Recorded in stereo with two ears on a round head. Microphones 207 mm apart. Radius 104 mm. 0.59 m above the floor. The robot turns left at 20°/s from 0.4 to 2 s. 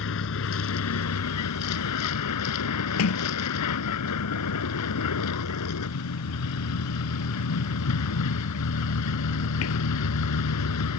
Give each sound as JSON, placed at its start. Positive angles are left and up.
{"t": 0.0, "sound": "a vehicle", "azimuth_deg": 115}
{"t": 3.0, "sound": "a sliding door", "side_deg": 75}